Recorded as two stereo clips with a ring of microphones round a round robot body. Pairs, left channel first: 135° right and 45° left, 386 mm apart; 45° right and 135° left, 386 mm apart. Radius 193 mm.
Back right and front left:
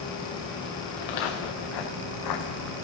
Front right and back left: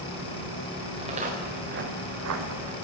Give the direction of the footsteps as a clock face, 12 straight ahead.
5 o'clock.